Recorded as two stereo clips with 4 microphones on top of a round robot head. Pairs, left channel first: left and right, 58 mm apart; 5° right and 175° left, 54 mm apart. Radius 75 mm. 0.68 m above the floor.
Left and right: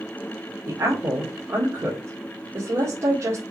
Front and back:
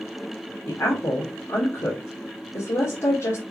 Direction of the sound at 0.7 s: 45° right.